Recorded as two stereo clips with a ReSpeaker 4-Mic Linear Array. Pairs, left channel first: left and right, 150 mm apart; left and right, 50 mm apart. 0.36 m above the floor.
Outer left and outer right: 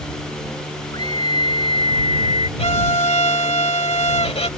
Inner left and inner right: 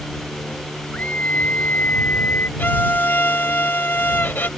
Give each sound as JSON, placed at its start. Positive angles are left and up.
{"t": 0.9, "sound": "a scream", "side_deg": 30}
{"t": 2.6, "sound": "a violin", "side_deg": 45}